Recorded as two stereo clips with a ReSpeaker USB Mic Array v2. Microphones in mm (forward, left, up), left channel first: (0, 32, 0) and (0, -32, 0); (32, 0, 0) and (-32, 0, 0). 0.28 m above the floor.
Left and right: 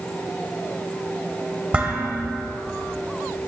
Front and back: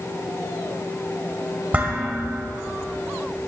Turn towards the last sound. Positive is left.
turn(degrees=-140)